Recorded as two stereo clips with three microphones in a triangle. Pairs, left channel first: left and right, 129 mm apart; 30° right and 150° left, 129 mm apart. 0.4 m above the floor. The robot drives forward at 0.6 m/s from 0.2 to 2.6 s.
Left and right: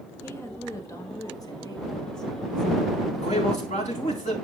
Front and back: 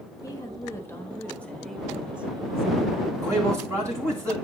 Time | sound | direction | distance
0.2 | a woman speaking | 25° left | 1.7 m
3.1 | a man speaking | 85° left | 3.5 m